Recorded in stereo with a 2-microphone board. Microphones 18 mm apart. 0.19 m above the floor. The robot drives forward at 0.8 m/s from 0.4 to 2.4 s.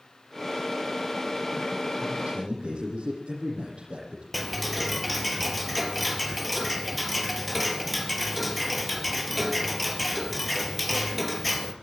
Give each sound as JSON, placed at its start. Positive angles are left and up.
{"t": 2.0, "sound": "a man speaking", "side_deg": -75, "distance_m": 8.0}
{"t": 4.3, "sound": "ticking", "side_deg": 0, "distance_m": 3.5}